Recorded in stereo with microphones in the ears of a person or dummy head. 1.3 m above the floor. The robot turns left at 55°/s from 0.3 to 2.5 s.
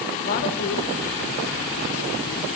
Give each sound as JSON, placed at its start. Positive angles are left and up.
{"t": 0.2, "sound": "a woman speaking", "side_deg": 45, "distance_m": 1.1}